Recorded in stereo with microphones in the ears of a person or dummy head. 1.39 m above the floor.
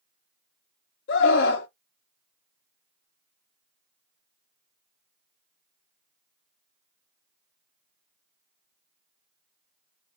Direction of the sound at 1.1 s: 55° left (ahead or behind).